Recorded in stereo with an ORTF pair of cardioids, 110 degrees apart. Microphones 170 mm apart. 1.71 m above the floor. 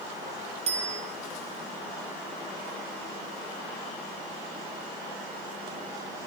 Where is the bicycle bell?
35° right, 6.5 m.